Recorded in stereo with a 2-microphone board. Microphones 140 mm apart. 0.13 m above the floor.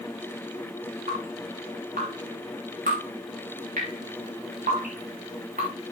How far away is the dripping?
About 6 m.